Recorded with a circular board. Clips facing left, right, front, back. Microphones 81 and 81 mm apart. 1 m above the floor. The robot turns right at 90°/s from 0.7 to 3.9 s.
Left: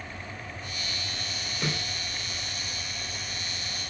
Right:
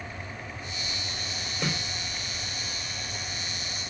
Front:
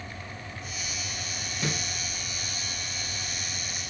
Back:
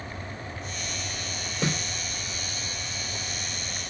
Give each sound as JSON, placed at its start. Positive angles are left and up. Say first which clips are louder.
{"t": 1.6, "sound": "a snare drum", "louder": "right 1 dB, back 4 dB", "azimuth_deg": 180, "distance_m": 2.0}